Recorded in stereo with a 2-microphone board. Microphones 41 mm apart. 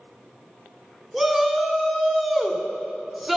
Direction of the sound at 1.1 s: 5° right (ahead or behind).